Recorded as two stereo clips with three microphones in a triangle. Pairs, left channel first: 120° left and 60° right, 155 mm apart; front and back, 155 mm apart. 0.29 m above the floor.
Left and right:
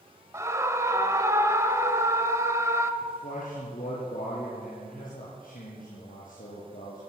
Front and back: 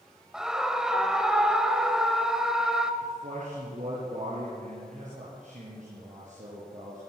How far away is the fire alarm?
No fire alarm in this recording.